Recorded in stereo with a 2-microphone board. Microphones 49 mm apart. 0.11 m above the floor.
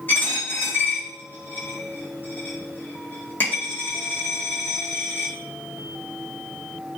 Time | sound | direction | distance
0.1 | a dropped coin | 40° left (ahead or behind) | 1.2 m